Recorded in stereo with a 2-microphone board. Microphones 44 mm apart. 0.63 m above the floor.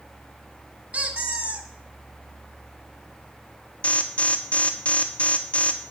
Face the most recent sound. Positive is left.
turn(degrees=30)  # may be behind; listen again after turning